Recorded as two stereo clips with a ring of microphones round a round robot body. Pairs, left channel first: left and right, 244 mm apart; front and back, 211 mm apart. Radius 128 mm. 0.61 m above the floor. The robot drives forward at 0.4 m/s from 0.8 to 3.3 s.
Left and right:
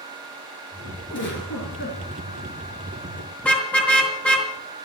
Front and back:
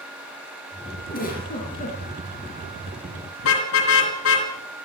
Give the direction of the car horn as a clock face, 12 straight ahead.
12 o'clock.